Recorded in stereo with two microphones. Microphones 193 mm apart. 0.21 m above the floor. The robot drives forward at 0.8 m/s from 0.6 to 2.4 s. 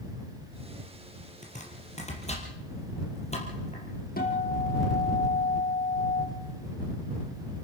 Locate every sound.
1.4 s chopping: 40° left (ahead or behind), 4 m; by 3.8 s 35° left (ahead or behind), 4.5 m
4.2 s a guitar: 50° left (ahead or behind), 4 m